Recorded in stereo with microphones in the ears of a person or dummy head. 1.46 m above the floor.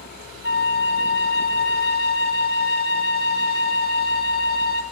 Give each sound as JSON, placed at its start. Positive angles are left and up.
{"t": 0.4, "sound": "a flute", "side_deg": 70, "distance_m": 1.2}